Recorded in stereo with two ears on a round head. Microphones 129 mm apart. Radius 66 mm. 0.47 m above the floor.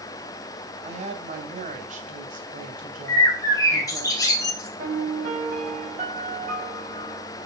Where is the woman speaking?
45° right (ahead or behind), 3 m; by 4.1 s 70° right (ahead or behind), 3 m.